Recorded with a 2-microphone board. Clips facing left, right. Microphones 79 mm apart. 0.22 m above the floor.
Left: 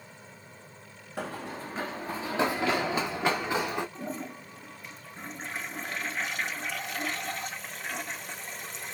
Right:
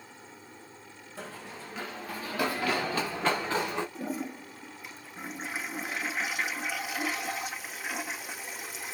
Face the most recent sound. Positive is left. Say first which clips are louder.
# right 2 dB
turn(degrees=-5)  # may be behind; listen again after turning